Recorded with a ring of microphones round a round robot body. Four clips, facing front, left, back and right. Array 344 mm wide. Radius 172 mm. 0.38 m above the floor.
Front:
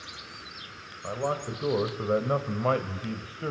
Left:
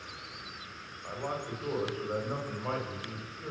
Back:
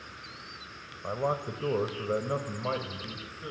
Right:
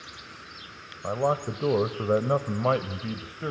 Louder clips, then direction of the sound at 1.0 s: Right 11 dB, even; 100° right.